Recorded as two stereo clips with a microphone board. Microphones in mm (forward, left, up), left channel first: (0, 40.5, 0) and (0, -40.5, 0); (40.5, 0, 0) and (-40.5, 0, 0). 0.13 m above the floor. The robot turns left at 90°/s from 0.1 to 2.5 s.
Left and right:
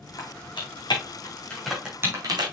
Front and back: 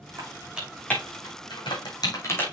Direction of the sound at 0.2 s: 135° left.